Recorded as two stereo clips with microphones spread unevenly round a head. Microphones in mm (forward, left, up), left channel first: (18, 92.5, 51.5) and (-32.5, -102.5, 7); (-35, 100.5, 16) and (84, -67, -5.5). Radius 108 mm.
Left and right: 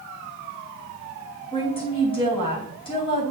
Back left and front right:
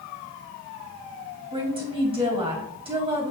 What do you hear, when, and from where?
1.5 s a woman speaking: 10° left, 3.5 m